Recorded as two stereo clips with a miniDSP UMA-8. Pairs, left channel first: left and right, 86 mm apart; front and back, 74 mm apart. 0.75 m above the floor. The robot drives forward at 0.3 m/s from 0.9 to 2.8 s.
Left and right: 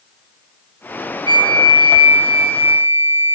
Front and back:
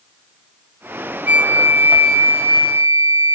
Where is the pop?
No pop in this recording.